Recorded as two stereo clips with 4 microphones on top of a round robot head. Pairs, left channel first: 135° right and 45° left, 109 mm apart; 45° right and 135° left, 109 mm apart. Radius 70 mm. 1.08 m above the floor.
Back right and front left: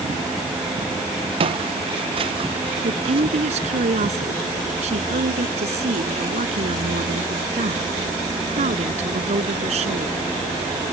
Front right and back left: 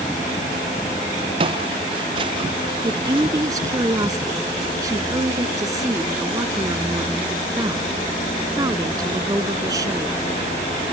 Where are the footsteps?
85° left.